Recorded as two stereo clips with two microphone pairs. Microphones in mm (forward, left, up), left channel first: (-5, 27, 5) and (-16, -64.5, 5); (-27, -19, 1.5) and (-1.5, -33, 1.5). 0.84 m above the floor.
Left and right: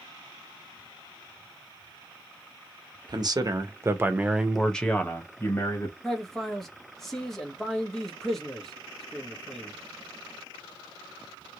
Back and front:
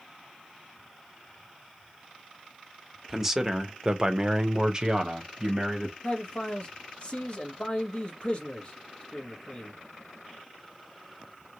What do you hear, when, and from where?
3.1 s a man speaking: 110° right, 0.9 m; by 5.9 s 35° left, 1.1 m
6.0 s a man speaking: 170° left, 1.0 m